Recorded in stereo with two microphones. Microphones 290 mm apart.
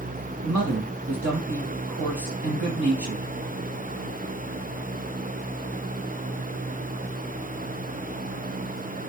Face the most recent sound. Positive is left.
turn(degrees=-80)